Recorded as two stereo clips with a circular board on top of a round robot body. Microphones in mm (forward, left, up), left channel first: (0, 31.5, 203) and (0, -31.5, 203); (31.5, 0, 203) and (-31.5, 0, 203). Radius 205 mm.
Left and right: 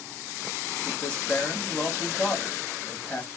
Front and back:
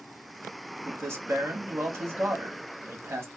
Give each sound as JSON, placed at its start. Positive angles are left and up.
{"t": 0.8, "sound": "a man speaking", "azimuth_deg": 150, "distance_m": 1.4}